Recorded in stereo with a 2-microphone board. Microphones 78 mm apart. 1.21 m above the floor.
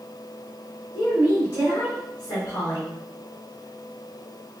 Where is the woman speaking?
60° left (ahead or behind), 2.5 m.